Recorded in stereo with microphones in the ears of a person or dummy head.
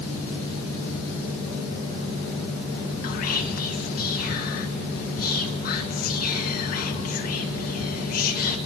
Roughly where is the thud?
No thud in this recording.